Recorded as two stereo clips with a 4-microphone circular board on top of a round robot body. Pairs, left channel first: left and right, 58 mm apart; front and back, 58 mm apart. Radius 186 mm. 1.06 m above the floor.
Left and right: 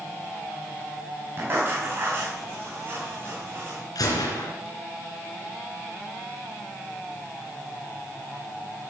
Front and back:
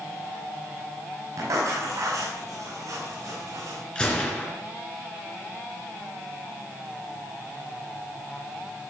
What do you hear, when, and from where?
1.4 s writing: 145° right, 5.5 m
4.0 s a gunshot: 75° left, 3 m